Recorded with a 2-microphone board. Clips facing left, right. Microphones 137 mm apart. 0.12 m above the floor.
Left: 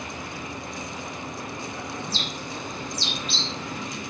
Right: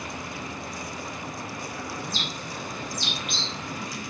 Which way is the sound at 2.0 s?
30° left (ahead or behind).